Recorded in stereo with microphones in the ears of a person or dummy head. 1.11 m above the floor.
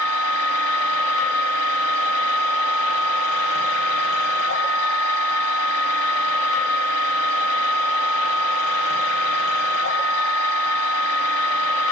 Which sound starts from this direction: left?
A machine running, at 0.0 s.